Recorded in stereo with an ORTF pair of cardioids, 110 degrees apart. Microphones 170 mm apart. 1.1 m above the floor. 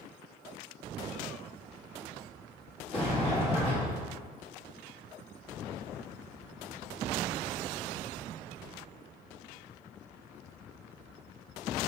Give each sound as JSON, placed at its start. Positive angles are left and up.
{"t": 2.9, "sound": "a sliding door", "azimuth_deg": 35, "distance_m": 1.7}